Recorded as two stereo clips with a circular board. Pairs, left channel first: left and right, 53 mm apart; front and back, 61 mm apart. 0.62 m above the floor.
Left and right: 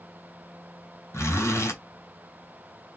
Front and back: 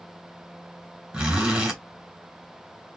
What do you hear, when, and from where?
1.1 s a zipper: 110° left, 2.5 m